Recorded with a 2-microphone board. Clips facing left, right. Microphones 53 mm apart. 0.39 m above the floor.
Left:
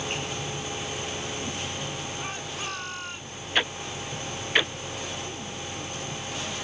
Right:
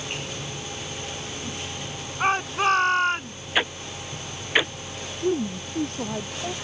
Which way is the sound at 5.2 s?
80° right.